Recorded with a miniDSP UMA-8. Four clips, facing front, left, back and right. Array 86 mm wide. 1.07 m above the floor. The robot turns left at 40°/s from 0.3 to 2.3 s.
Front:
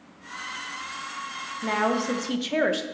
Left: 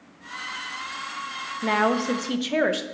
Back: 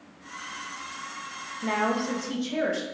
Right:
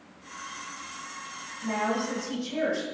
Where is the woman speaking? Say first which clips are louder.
Left 6 dB, front 2 dB; 85° left, 0.6 m; by 2.8 s 60° left, 0.6 m.